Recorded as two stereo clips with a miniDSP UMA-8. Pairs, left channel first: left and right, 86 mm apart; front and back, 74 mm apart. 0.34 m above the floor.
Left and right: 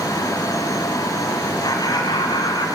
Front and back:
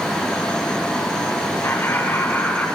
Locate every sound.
1.6 s laughter: 55° left, 3 m; by 2.6 s 65° left, 4 m